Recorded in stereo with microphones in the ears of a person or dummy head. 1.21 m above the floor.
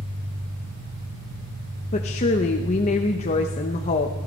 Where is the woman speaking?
35° left (ahead or behind), 1.0 m.